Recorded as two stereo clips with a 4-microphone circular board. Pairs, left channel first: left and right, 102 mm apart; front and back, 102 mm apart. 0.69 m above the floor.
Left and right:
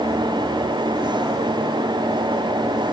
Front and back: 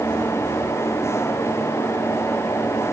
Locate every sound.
Only background noise.